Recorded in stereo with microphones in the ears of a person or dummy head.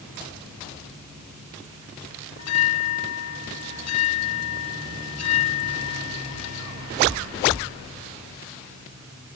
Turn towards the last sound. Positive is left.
turn(degrees=80)